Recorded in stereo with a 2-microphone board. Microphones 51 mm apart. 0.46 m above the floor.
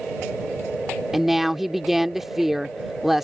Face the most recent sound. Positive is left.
turn(degrees=-5)  # may be behind; listen again after turning